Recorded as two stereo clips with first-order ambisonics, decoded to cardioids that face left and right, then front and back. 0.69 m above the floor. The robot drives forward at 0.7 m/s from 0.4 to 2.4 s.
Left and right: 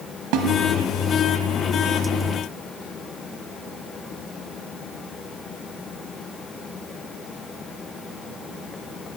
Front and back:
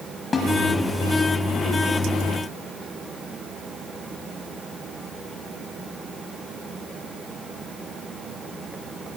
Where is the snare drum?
75° right, 1.0 m; by 0.5 s 80° right, 1.0 m.